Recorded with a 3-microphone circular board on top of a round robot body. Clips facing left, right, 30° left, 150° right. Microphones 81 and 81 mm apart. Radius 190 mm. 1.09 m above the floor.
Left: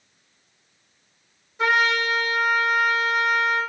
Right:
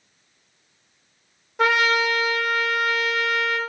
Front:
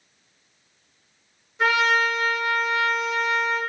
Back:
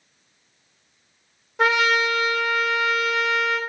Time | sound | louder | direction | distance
1.6 | a trumpet | right 1 dB, back 1 dB | 120° right | 0.5 m